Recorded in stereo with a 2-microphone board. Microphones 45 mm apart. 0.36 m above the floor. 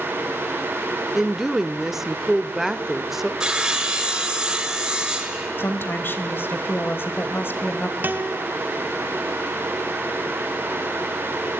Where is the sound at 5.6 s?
50° left (ahead or behind), 1.7 m.